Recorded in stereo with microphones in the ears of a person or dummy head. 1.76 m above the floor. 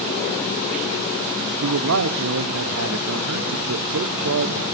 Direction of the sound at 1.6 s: 75° right (ahead or behind).